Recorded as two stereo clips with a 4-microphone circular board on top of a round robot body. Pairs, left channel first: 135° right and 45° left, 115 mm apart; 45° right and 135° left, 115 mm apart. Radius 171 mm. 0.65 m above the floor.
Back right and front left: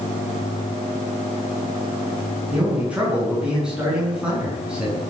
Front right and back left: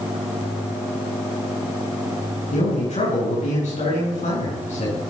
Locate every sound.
2.5 s a man speaking: 35° right, 8.5 m